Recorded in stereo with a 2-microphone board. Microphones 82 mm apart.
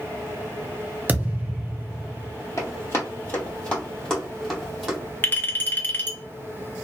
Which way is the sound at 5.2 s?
25° left (ahead or behind).